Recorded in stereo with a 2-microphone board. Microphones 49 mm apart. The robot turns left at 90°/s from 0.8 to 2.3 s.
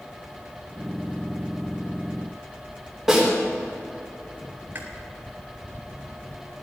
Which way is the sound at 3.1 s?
Centre (ahead or behind).